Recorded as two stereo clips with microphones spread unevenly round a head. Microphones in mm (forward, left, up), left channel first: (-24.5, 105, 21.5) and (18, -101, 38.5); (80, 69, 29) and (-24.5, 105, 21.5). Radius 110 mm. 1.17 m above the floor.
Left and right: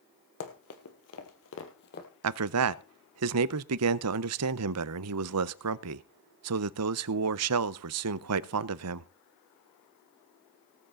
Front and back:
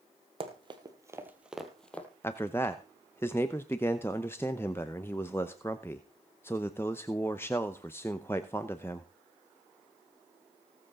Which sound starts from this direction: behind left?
Running footsteps, at 0.4 s.